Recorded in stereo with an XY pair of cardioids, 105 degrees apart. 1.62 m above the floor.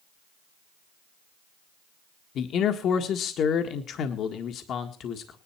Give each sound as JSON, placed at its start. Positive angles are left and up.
{"t": 2.4, "sound": "a man speaking", "azimuth_deg": 65, "distance_m": 1.6}